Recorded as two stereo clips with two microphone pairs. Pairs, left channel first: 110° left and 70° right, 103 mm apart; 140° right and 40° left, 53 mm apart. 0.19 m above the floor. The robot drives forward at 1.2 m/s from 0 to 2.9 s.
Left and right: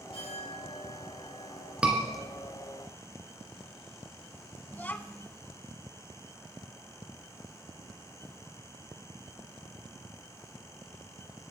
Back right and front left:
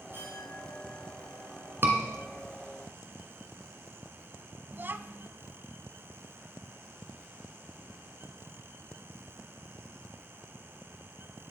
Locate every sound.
0.1 s a clink: 85° left, 6 m; by 1.7 s 100° left, 6 m
1.8 s a scream: 10° left, 2.5 m
4.7 s a child speaking: 50° left, 0.7 m